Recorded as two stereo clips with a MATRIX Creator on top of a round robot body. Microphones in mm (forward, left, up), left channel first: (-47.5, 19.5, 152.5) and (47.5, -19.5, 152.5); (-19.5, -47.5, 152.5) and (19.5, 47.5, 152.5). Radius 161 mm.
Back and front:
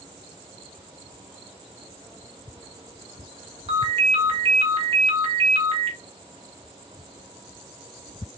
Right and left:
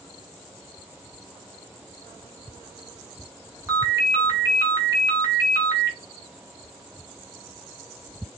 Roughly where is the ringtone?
Ahead.